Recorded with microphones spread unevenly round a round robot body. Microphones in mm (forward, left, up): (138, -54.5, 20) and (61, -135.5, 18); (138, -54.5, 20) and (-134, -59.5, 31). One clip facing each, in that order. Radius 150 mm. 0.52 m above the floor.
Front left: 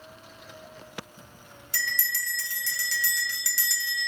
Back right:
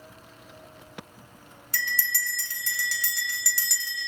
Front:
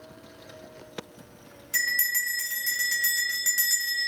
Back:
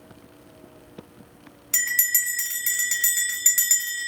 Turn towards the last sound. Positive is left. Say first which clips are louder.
# back right 2 dB, front 1 dB
turn(degrees=-140)